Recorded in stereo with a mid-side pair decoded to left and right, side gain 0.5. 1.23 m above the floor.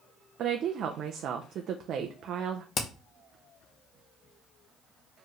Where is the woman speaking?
60° right, 0.6 m.